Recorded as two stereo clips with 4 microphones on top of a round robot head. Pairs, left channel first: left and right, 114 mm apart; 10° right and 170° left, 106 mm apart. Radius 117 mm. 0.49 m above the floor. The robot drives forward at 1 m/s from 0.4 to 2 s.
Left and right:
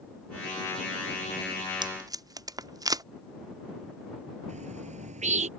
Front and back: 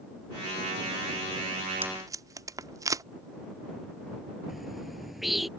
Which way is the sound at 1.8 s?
125° right.